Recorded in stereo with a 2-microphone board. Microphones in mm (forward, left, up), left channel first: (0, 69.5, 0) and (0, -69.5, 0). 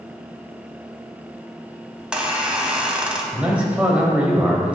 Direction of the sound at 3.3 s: 10° right (ahead or behind).